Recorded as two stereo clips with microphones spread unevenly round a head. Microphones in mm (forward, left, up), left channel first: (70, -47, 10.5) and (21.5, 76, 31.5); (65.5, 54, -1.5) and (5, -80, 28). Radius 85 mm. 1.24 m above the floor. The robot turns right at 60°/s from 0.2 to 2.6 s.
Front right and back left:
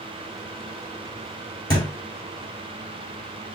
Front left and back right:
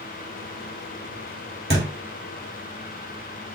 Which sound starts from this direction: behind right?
A thud, at 1.7 s.